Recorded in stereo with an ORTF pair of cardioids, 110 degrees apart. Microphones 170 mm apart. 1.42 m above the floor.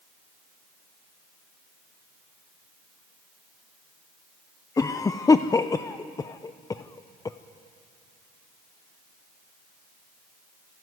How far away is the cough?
About 0.6 m.